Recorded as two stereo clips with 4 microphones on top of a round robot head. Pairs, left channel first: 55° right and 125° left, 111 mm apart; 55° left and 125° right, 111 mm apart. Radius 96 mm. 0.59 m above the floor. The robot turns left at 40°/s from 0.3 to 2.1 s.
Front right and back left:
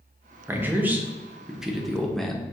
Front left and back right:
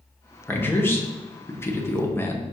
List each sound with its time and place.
0.5 s a man speaking: 95° left, 0.8 m; by 2.4 s 30° left, 0.8 m